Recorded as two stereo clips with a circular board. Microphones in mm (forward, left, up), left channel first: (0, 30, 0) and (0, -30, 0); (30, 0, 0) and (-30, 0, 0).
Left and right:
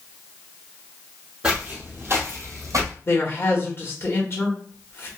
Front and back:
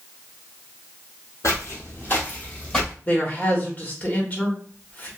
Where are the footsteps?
25° right, 1.3 m; by 2.9 s 80° right, 1.3 m.